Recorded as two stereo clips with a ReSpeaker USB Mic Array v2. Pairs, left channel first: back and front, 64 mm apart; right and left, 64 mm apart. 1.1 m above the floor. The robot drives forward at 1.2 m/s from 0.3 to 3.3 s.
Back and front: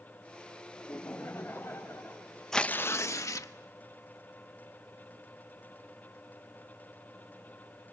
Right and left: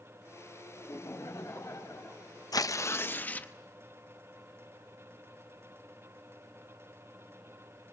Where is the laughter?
110° right, 5 m; by 2.3 s 130° right, 6 m.